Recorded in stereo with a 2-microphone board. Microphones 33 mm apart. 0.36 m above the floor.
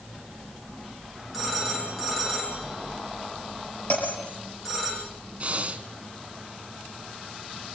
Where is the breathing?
40° right (ahead or behind), 1.7 m.